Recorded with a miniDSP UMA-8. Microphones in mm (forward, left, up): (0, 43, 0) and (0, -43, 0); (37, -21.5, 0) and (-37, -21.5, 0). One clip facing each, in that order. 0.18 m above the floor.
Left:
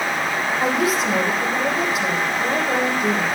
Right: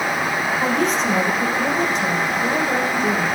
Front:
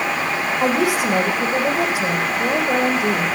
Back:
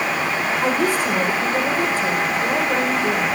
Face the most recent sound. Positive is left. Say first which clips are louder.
# even, front 2 dB
turn(degrees=10)